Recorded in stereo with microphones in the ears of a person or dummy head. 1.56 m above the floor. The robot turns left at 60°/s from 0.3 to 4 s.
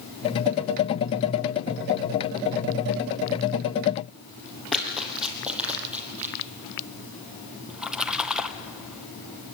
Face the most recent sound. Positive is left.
turn(degrees=0)  # may be behind; listen again after turning